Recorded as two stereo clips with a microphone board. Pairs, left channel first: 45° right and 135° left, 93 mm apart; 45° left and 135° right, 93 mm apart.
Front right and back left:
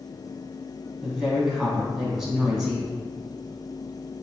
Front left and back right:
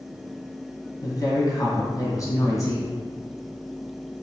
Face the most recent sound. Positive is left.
turn(degrees=55)